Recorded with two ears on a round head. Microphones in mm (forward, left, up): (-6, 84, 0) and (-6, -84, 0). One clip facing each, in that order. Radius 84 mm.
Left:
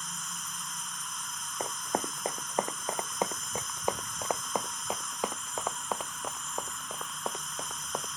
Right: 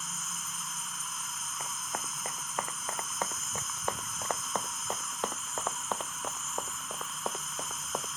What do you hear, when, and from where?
0.0 s an insect: 5° right (ahead or behind)
1.6 s running footsteps: 35° left (ahead or behind); by 8.1 s centre (ahead or behind)